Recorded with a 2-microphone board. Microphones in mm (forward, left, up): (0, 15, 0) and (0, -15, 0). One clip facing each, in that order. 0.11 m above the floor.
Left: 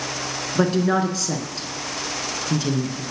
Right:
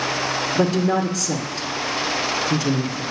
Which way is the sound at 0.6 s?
20° left (ahead or behind).